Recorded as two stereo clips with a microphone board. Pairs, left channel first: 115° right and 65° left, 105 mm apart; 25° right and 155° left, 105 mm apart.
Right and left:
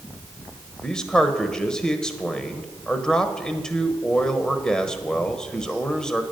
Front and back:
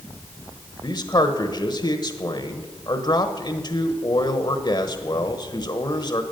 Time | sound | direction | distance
0.8 | a man speaking | 30° right | 1.2 m